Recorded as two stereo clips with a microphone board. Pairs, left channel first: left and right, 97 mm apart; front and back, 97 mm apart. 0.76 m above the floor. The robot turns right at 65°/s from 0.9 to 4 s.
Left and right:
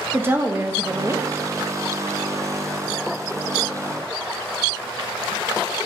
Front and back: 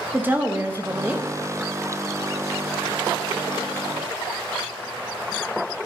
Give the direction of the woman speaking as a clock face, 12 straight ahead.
4 o'clock.